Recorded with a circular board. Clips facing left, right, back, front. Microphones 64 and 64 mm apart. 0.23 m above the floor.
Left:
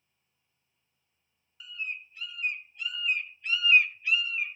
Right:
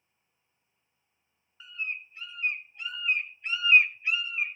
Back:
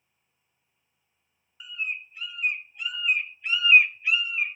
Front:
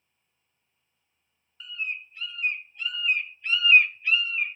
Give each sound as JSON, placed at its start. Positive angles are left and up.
{"t": 1.6, "sound": "a bird", "azimuth_deg": -115, "distance_m": 0.6}